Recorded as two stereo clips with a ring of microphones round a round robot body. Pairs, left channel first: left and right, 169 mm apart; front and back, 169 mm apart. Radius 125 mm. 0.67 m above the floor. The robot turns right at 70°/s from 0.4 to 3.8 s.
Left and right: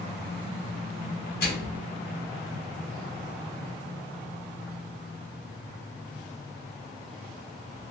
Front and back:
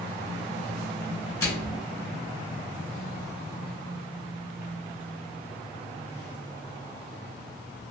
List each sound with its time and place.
1.4 s a microwave: 70° left, 1.8 m; by 1.8 s 100° left, 1.8 m